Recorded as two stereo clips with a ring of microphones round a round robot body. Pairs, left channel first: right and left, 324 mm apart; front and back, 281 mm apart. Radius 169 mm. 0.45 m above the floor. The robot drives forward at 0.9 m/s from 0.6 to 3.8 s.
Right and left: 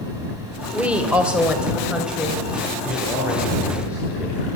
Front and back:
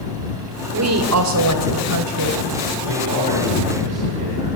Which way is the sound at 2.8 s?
175° left.